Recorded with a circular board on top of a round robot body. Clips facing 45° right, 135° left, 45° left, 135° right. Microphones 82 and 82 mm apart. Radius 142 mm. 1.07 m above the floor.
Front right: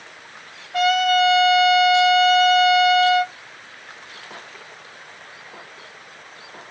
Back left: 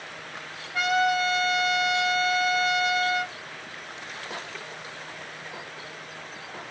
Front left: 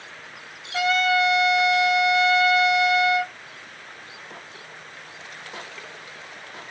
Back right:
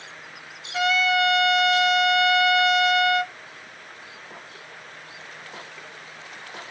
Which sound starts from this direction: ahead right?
A trumpet, at 0.7 s.